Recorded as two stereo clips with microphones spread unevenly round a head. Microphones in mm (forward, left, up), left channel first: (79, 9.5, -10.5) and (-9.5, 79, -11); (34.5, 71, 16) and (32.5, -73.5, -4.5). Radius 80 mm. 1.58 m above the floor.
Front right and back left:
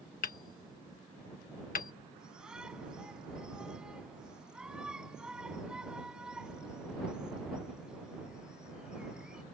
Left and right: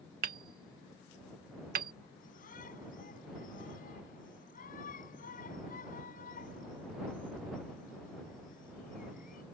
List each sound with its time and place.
0.2 s hammering: 60° right
2.2 s a shout: 60° left